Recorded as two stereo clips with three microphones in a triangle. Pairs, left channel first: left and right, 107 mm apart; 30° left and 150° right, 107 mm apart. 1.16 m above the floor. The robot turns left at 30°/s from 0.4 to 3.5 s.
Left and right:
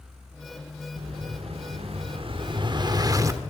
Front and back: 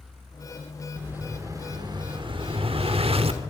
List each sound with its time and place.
1.0 s an explosion: 75° right, 1.2 m; by 3.5 s 155° right, 1.2 m